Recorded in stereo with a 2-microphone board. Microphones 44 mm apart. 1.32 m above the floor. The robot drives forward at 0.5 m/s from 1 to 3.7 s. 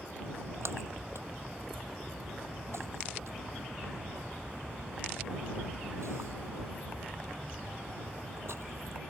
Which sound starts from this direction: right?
A splash, at 0.2 s.